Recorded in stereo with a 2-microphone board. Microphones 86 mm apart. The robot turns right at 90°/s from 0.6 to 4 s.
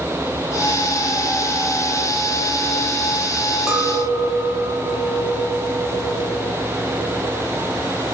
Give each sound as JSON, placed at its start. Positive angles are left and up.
{"t": 3.7, "sound": "a clink", "side_deg": -5, "distance_m": 0.6}